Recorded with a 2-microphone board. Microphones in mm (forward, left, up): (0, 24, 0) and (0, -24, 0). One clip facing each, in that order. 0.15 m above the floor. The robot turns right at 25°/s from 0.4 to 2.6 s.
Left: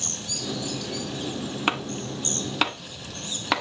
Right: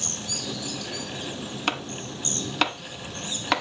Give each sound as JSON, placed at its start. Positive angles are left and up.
{"t": 1.7, "sound": "chopping", "side_deg": 15, "distance_m": 0.6}